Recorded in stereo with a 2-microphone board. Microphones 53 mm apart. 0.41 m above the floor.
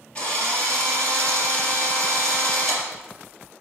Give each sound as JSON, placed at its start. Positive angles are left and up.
{"t": 0.1, "sound": "a drill", "side_deg": 25, "distance_m": 3.5}